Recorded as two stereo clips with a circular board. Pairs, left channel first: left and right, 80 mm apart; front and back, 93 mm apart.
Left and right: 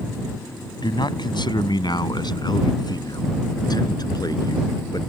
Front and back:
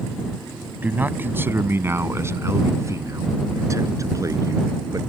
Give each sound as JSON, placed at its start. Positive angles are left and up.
{"t": 0.8, "sound": "a man speaking", "azimuth_deg": 110}